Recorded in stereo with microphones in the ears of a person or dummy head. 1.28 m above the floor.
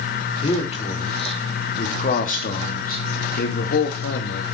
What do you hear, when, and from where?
0.4 s a man speaking: 35° left (ahead or behind), 4 m; by 4.4 s 65° left (ahead or behind), 3 m